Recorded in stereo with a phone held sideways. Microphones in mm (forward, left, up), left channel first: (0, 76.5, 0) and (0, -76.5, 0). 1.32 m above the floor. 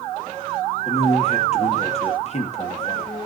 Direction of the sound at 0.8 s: 45° left (ahead or behind).